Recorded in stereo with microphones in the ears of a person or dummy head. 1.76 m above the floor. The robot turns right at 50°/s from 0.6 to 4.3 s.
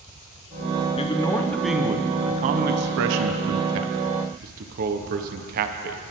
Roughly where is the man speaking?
Behind left.